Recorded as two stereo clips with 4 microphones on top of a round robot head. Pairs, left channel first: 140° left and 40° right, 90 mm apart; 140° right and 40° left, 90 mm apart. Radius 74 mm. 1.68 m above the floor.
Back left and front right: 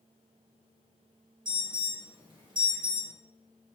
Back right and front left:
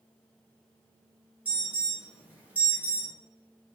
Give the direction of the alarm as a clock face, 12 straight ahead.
1 o'clock.